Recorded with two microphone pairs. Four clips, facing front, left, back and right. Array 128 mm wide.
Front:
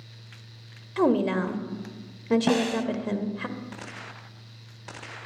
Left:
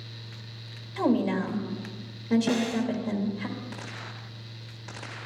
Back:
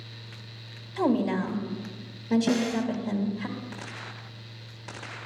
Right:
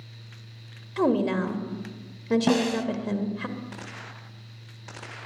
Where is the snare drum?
45° right, 1.1 m.